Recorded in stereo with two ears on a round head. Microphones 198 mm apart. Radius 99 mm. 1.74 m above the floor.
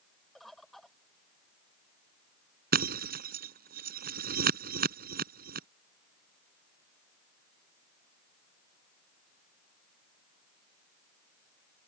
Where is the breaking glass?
40° right (ahead or behind).